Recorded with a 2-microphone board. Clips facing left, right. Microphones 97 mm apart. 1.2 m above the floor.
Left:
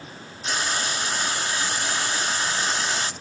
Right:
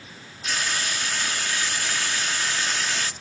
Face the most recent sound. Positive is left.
turn(degrees=30)  # may be behind; listen again after turning